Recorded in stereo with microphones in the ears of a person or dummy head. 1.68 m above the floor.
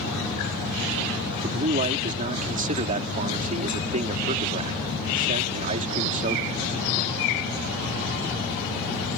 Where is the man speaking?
40° right (ahead or behind).